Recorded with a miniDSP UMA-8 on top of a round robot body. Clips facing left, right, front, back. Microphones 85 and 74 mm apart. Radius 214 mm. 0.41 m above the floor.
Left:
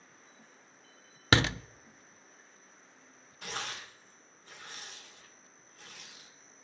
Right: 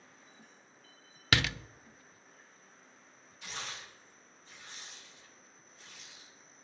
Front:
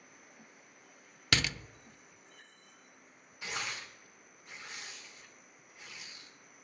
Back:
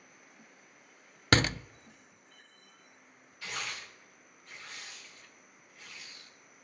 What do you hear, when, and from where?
1.3 s a door slam: 140° left, 0.5 m
3.4 s tearing paper: 70° left, 2.5 m